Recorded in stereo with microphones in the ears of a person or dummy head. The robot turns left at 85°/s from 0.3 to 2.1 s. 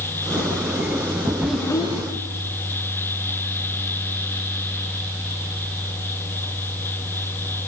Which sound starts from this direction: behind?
A child speaking, at 1.4 s.